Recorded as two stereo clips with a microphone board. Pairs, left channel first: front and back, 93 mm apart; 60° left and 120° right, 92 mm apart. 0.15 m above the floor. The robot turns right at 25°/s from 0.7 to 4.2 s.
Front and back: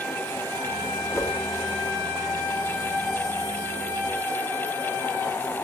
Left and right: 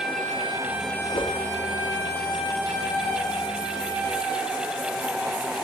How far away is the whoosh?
About 7 m.